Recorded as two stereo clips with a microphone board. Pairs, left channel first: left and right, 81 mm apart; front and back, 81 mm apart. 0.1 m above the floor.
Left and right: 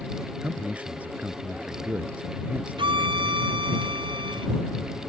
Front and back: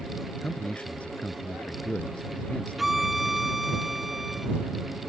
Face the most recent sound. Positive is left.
turn(degrees=-90)